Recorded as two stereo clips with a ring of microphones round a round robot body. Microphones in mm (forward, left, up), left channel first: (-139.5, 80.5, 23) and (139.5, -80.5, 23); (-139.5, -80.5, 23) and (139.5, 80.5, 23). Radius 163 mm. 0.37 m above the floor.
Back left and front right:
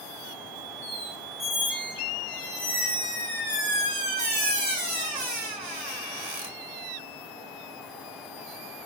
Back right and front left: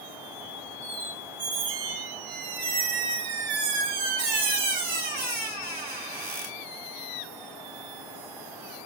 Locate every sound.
0.8 s a squeak: 35° left, 1.3 m